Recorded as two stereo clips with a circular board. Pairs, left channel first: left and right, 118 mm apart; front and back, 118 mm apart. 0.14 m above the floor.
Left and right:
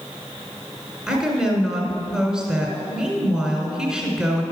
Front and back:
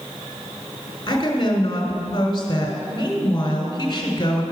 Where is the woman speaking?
10° right, 1.4 m.